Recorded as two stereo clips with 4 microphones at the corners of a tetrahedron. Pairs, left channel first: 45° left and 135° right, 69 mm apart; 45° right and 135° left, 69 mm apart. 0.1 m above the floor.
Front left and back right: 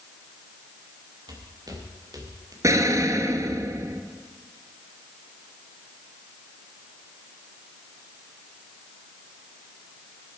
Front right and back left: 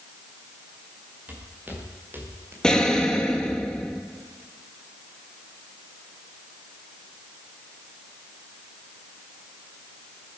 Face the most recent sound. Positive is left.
turn(degrees=-120)